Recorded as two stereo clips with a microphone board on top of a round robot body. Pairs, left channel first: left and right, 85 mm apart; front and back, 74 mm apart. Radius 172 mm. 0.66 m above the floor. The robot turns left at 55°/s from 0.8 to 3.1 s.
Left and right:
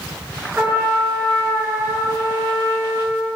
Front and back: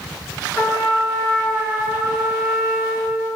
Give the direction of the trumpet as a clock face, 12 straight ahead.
2 o'clock.